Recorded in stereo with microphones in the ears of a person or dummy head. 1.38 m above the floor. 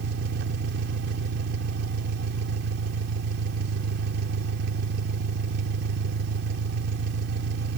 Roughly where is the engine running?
Right.